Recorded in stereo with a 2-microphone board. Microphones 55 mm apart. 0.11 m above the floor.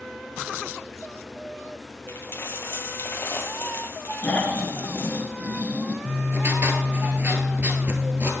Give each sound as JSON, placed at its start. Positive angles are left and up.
{"t": 2.1, "sound": "a dropped coin", "side_deg": 45, "distance_m": 1.1}
{"t": 4.2, "sound": "snoring", "side_deg": 30, "distance_m": 1.4}
{"t": 6.0, "sound": "writing", "side_deg": -40, "distance_m": 1.3}